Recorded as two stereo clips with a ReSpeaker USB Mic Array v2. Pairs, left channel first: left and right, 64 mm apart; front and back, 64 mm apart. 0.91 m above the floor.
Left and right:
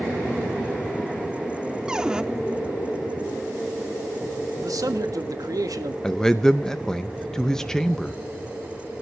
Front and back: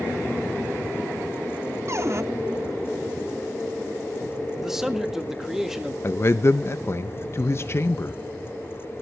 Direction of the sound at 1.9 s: 165° right.